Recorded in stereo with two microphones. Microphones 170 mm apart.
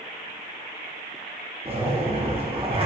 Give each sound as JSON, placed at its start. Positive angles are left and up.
{"t": 1.6, "sound": "a zipper", "side_deg": -35, "distance_m": 0.5}